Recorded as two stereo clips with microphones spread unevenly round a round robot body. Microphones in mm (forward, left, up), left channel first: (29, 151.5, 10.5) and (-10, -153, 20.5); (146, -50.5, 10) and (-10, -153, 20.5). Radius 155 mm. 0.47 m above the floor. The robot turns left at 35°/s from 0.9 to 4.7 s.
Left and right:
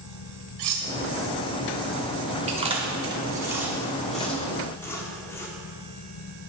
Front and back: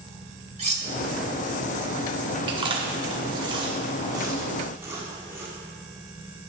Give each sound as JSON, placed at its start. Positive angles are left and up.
{"t": 0.6, "sound": "cutlery clinking", "azimuth_deg": -95, "distance_m": 2.5}
{"t": 2.5, "sound": "chewing", "azimuth_deg": -135, "distance_m": 1.4}